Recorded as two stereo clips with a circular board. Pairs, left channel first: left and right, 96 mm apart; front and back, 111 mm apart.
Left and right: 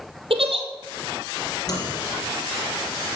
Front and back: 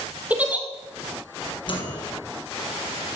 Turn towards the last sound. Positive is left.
turn(degrees=40)